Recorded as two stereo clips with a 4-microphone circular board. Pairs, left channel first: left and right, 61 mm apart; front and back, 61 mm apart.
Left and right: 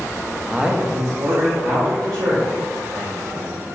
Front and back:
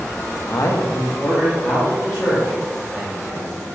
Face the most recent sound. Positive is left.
turn(degrees=-105)